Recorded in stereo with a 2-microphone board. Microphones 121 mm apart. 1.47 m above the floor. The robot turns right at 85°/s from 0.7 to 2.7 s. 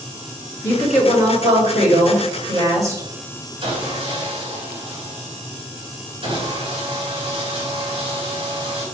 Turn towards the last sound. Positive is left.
turn(degrees=-50)  # may be behind; listen again after turning